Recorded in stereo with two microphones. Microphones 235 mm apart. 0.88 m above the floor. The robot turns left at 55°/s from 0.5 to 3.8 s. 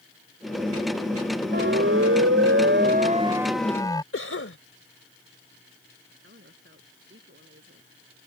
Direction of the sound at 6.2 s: 55° right (ahead or behind).